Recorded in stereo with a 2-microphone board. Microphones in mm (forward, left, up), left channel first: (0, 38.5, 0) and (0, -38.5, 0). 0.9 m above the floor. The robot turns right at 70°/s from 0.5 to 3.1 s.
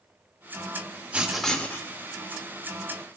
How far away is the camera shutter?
I don't hear a camera shutter.